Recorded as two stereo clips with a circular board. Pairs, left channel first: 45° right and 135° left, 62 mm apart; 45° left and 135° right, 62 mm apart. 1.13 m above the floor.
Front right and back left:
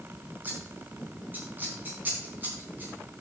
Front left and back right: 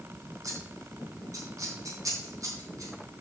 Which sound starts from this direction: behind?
Scissors, at 0.4 s.